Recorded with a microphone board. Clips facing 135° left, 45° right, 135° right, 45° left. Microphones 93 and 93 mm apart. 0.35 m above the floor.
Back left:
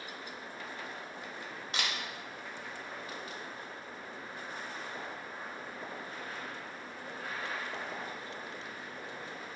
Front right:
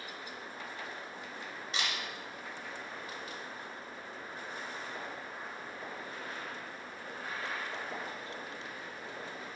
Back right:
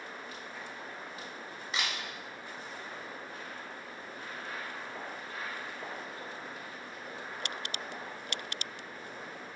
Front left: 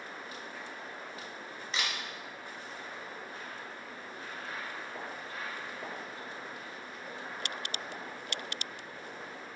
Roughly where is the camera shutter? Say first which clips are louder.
Even, even; behind left.